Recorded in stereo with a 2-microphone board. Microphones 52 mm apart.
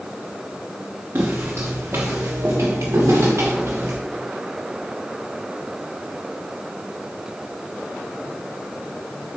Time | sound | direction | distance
1.1 | footsteps | 50° right (ahead or behind) | 1.3 m